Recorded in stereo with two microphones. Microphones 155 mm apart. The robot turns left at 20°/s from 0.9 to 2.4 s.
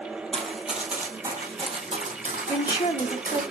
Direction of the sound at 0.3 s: 5° left (ahead or behind).